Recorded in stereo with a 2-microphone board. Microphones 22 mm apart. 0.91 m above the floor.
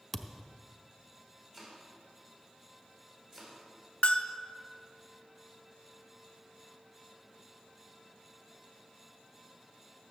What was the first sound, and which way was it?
A thud, centre (ahead or behind).